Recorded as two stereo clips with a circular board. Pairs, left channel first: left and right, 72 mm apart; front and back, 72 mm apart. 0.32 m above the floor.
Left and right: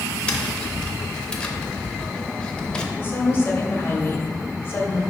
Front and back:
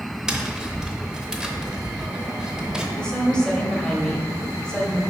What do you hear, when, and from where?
0.3 s tapping: 125° left, 0.8 m
3.0 s a woman speaking: 70° left, 1.3 m